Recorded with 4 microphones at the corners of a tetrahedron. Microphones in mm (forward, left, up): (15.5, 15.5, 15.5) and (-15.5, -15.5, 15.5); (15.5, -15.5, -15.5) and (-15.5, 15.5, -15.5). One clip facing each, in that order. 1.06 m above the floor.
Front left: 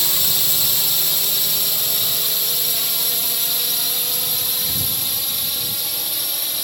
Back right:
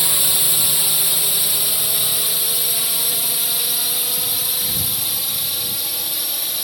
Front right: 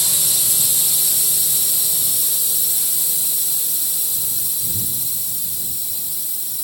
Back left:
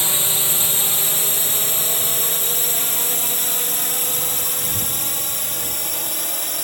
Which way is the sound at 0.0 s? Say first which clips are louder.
Back right 1 dB, back left 3 dB; 155° left.